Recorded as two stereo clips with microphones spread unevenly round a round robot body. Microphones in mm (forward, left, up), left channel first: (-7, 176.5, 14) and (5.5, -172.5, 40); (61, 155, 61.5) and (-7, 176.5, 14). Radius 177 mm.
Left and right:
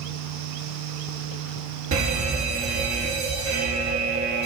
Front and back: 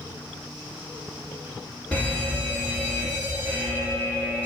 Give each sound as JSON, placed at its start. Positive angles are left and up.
{"t": 1.9, "sound": "a fire alarm", "azimuth_deg": -125, "distance_m": 2.5}